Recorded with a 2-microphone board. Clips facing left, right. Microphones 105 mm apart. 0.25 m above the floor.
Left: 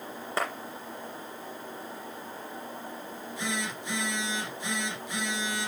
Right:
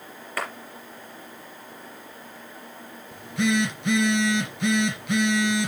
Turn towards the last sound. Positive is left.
turn(degrees=-60)  # may be behind; listen again after turning